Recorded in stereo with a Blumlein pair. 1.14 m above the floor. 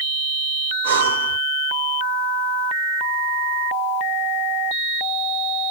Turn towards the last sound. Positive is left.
turn(degrees=-70)